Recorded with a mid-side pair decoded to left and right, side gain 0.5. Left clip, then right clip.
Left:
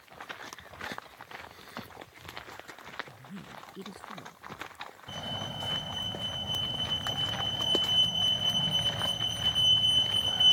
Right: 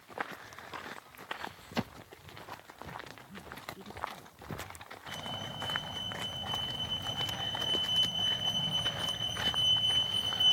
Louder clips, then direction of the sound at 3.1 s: Even; 45° left.